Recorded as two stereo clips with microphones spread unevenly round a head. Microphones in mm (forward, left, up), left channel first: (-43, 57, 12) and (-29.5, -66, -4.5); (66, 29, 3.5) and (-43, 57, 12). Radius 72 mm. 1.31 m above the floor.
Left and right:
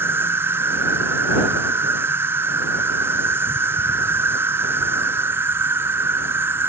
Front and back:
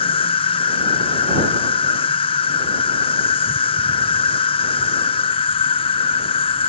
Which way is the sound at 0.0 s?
20° right.